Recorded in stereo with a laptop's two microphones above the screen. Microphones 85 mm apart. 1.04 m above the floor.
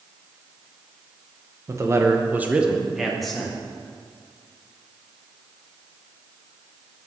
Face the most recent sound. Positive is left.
turn(degrees=5)  # may be behind; listen again after turning